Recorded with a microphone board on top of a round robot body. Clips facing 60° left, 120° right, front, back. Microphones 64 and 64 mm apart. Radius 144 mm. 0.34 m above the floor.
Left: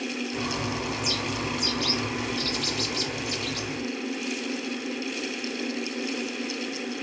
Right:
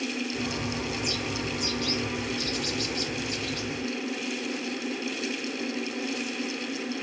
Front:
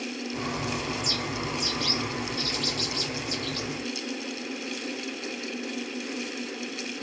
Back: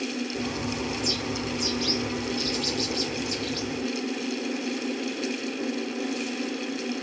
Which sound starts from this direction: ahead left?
A bird, at 0.3 s.